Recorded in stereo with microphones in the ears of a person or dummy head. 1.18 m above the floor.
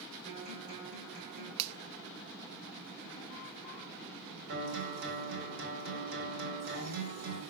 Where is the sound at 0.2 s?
45° right (ahead or behind), 4.5 m.